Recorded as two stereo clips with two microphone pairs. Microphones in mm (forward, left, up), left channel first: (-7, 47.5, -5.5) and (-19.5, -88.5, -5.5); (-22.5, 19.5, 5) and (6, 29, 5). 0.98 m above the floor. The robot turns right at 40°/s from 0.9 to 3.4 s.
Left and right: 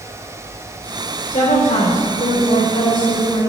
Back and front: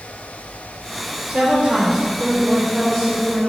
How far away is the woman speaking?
About 3 m.